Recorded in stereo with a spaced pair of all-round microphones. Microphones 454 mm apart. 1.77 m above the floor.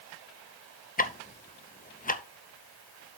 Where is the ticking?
20° left (ahead or behind), 0.7 m.